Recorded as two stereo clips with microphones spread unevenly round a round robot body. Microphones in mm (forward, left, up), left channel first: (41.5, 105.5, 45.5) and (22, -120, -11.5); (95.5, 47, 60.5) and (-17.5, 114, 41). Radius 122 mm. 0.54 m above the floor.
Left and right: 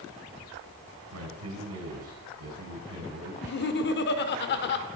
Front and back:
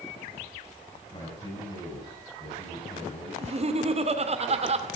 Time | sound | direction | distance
1.1 | a man speaking | 95° right | 6 m
3.4 | laughter | 135° left | 2.0 m